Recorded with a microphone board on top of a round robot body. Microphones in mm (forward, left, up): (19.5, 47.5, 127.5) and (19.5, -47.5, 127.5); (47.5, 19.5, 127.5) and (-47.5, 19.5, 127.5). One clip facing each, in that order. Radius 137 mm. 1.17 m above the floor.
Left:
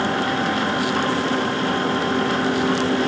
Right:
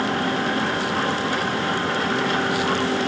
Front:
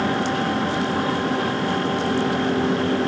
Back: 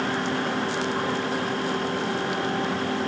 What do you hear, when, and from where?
Only background noise.